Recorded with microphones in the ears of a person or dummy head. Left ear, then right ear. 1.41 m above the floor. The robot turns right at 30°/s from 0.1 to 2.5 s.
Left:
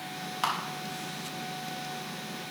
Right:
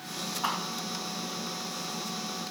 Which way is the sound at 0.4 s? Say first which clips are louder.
Left 2 dB; 70° left (ahead or behind).